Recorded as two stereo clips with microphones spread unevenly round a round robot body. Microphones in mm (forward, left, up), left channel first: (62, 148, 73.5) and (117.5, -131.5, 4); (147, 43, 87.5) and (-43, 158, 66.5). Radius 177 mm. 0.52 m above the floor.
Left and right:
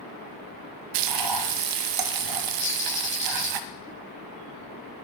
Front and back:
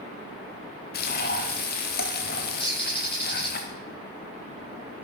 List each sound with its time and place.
0.9 s frying: 90° right, 1.1 m
2.6 s a bird: 35° left, 8 m